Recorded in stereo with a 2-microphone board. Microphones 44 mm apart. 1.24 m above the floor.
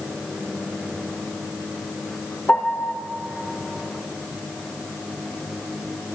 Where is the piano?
45° left (ahead or behind), 1.1 m.